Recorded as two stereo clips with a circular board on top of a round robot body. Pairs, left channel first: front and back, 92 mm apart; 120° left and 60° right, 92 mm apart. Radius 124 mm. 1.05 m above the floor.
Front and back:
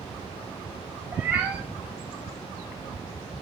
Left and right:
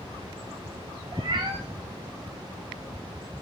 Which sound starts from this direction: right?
A cat meowing, at 1.1 s.